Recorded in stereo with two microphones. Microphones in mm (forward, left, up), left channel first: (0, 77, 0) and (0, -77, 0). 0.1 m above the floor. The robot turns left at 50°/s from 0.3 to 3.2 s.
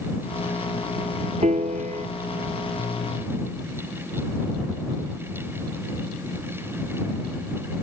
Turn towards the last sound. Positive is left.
turn(degrees=-165)